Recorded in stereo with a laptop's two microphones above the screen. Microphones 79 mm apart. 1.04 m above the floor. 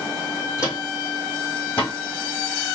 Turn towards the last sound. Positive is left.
turn(degrees=20)  # may be behind; listen again after turning